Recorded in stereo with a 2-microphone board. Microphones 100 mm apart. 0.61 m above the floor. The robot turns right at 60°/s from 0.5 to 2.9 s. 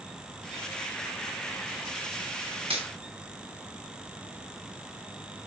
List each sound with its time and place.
2.7 s a finger snap: 75° right (ahead or behind), 5.5 m; by 2.9 s 80° right, 5.5 m